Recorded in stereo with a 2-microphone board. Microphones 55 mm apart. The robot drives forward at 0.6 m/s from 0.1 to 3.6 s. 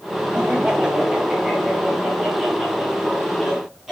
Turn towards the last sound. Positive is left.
turn(degrees=-10)  # may be behind; listen again after turning